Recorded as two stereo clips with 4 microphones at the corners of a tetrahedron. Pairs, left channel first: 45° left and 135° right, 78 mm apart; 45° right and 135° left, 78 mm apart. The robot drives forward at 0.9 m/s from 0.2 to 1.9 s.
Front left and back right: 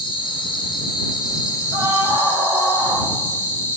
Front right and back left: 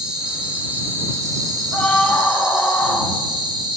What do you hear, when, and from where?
0.0 s an insect: 55° left, 2.0 m; by 3.8 s 100° left, 1.7 m
1.7 s a scream: 120° right, 3 m; by 3.1 s 125° right, 3 m